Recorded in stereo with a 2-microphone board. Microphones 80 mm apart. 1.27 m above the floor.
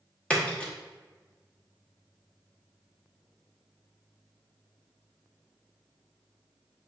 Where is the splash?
15° left (ahead or behind), 0.9 m.